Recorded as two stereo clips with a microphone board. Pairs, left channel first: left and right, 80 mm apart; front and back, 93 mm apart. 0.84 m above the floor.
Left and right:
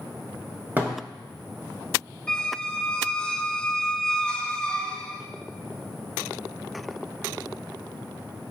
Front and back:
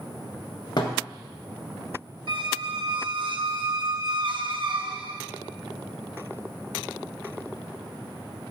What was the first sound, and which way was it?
A thud, 25° right.